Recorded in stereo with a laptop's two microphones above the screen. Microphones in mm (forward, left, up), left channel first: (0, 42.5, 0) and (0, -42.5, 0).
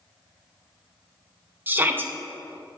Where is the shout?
20° right (ahead or behind), 0.6 m.